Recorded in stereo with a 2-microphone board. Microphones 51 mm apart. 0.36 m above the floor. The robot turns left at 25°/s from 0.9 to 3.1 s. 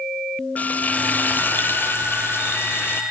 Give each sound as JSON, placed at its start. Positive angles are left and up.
{"t": 0.6, "sound": "frying", "azimuth_deg": 135, "distance_m": 1.1}